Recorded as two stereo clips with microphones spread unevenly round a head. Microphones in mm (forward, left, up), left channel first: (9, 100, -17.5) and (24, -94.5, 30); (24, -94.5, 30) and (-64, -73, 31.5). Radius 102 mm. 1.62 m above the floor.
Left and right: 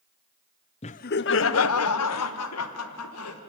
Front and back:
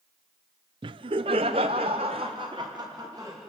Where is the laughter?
160° left, 0.5 m; by 3.4 s 95° left, 1.9 m.